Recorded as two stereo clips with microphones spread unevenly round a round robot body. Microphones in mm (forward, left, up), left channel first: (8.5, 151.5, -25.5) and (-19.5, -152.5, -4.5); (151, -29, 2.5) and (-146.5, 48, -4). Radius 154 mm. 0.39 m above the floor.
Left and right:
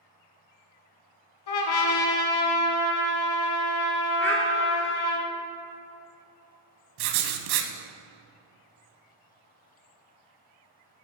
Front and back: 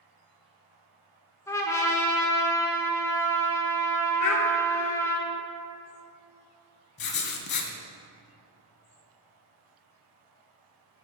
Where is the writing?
75° right, 0.7 m.